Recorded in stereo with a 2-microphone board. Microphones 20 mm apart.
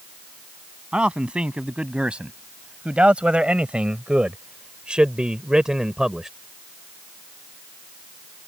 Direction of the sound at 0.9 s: 60° right (ahead or behind).